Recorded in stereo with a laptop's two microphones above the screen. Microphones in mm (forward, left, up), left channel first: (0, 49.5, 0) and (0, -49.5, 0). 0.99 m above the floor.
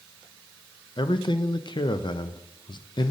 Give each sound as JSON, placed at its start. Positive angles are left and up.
{"t": 1.0, "sound": "a man speaking", "side_deg": 50, "distance_m": 0.5}